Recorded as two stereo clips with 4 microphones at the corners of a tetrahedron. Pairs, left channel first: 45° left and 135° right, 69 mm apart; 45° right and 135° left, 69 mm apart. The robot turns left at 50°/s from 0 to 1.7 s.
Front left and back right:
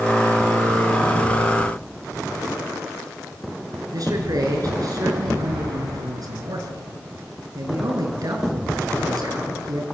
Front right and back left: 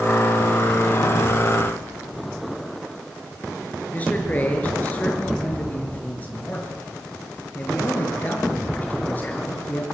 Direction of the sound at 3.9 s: 110° right.